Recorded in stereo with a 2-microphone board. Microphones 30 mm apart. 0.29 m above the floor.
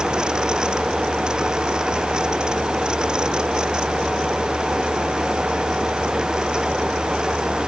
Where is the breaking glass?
No breaking glass in this recording.